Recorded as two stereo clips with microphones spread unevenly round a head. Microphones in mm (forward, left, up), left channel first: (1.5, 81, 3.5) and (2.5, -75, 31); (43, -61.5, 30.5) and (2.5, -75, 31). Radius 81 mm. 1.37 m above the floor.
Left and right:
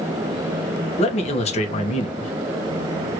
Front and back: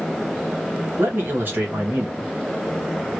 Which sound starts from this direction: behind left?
A man speaking, at 1.0 s.